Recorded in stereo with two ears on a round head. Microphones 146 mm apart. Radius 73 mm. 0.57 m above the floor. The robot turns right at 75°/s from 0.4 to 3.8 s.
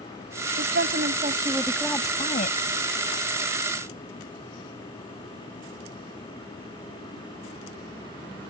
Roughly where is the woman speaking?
Right.